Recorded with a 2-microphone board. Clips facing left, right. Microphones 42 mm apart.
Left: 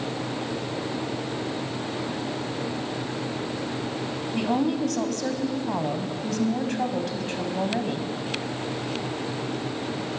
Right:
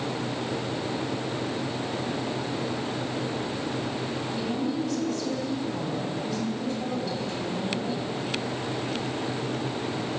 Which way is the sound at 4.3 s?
65° left (ahead or behind).